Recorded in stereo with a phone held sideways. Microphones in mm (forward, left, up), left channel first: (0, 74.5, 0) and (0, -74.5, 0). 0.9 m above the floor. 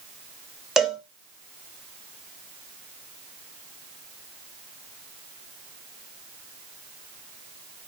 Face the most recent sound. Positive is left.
turn(degrees=-5)  # may be behind; listen again after turning